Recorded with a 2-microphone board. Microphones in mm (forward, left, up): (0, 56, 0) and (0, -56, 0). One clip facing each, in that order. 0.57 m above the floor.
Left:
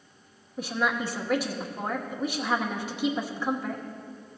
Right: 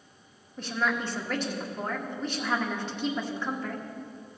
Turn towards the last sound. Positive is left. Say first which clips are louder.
# left 1 dB
turn(degrees=10)  # may be behind; listen again after turning